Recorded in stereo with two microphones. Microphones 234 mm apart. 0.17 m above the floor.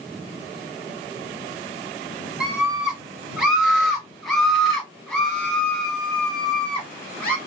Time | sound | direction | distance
2.4 | a scream | 5° right (ahead or behind) | 1.8 m